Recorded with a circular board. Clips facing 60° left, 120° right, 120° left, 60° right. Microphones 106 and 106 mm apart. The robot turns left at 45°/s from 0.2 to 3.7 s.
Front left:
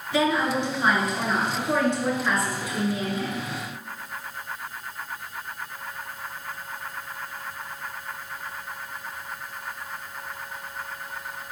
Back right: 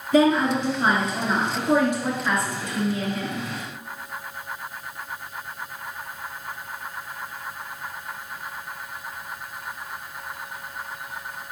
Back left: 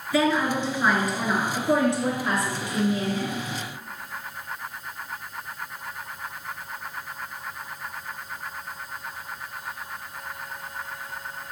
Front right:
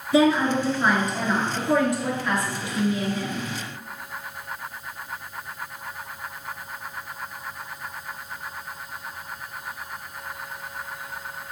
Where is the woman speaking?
115° right, 2.0 m; by 3.5 s 100° left, 2.0 m.